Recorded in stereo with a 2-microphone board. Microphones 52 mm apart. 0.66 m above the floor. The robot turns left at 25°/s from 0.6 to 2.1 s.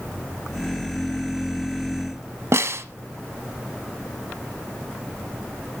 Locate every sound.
2.5 s a snare drum: 60° right (ahead or behind), 0.9 m